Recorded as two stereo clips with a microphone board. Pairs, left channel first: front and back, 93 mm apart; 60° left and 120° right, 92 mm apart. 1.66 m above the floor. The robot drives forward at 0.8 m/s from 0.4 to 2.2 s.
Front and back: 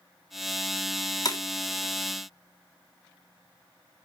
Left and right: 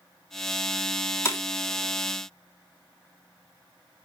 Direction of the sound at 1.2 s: 10° left.